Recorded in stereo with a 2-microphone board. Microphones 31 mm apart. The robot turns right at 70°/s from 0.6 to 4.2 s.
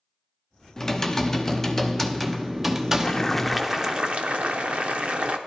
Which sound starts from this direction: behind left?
Boiling, at 3.0 s.